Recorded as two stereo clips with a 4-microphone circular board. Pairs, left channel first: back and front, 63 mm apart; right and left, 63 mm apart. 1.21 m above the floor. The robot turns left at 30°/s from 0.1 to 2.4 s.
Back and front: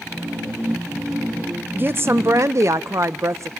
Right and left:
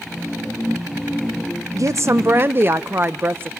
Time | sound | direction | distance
1.7 | a woman speaking | 55° left | 0.6 m